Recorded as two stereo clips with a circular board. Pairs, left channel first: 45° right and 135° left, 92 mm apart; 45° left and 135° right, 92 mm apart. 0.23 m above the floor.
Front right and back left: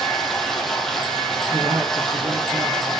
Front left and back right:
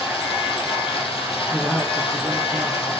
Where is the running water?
45° left, 5 m.